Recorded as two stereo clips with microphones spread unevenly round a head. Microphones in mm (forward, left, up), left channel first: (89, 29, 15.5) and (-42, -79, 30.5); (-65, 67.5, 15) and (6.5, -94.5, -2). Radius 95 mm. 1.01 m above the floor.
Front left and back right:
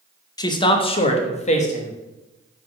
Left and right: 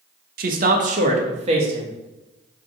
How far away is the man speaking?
About 1.0 m.